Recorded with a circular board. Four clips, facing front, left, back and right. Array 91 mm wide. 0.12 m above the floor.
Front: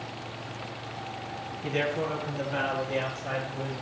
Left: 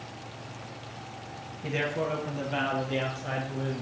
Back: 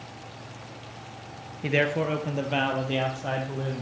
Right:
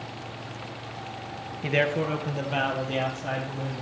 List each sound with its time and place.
1.6 s a man speaking: 135° right, 1.7 m; by 3.8 s 165° right, 4 m